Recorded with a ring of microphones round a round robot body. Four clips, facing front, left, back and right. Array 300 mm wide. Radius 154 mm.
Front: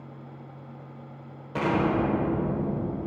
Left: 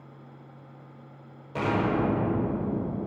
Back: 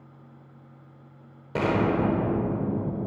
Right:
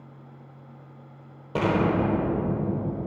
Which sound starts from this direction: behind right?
An explosion, at 1.6 s.